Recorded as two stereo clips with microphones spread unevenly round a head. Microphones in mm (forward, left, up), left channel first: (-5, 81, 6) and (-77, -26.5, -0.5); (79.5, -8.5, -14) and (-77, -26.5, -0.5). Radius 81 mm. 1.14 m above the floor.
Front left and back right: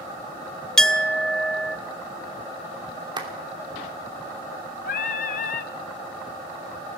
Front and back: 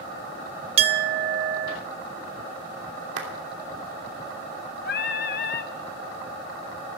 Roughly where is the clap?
Behind.